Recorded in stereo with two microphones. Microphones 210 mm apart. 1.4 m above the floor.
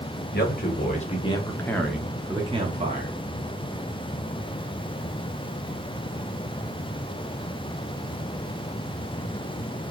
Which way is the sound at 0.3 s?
50° left (ahead or behind).